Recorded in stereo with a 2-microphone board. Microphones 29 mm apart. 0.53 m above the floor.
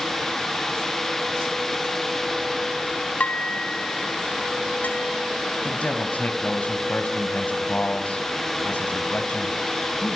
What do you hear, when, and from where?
3.2 s dishes clattering: 65° left (ahead or behind), 2.5 m
5.6 s a man speaking: 60° left (ahead or behind), 3 m